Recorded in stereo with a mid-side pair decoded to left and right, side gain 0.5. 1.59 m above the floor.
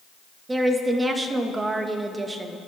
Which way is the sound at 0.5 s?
20° right.